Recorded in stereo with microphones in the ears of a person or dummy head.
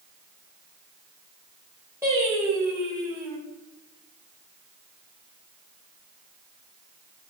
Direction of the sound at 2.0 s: 10° right (ahead or behind).